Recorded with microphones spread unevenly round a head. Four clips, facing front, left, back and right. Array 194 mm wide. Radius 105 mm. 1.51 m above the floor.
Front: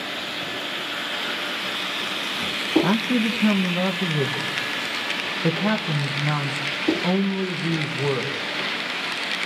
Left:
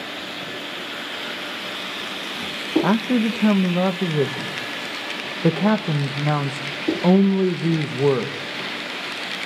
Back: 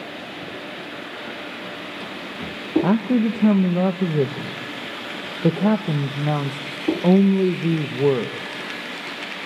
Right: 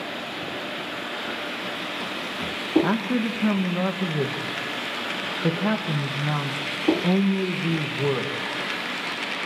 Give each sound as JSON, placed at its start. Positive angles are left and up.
{"t": 2.8, "sound": "a man speaking", "azimuth_deg": 145, "distance_m": 1.5}